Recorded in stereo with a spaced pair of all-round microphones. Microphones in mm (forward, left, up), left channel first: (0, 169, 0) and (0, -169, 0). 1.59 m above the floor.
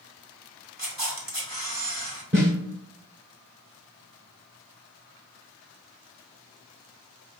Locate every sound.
0.8 s a camera shutter: 70° right (ahead or behind), 1.7 m
2.3 s a snare drum: 30° right (ahead or behind), 1.2 m